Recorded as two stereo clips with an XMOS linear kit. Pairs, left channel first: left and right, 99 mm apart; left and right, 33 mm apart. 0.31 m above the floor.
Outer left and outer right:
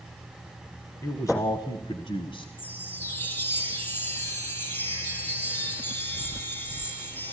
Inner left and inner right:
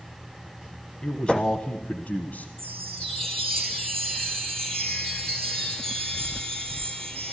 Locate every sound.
1.0 s a man speaking: 30° left (ahead or behind), 1.8 m; by 2.5 s 65° left (ahead or behind), 1.8 m
2.6 s a chime: 20° left (ahead or behind), 6 m